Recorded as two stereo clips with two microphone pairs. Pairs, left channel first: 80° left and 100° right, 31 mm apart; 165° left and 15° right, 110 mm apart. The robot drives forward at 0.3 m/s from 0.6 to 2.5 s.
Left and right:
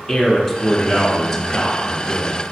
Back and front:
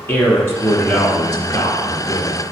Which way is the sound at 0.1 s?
140° left.